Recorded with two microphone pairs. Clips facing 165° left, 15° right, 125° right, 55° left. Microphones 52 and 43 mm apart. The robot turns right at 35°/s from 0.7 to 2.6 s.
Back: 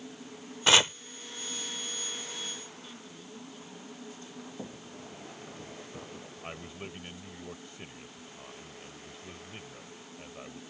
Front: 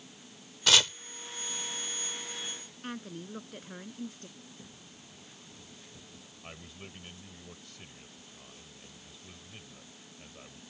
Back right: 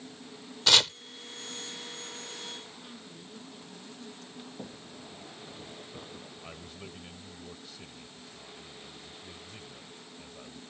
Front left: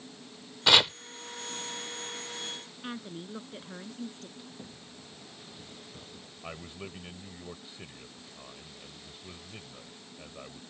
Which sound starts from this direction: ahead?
A woman speaking, at 2.8 s.